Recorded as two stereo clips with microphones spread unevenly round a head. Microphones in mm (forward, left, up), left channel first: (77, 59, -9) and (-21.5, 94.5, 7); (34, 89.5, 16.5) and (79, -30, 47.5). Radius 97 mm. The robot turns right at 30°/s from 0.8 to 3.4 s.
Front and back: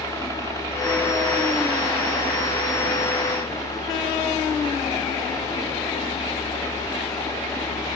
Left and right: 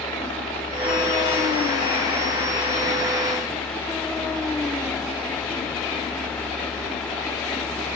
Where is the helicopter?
115° left; by 8.0 s 165° right.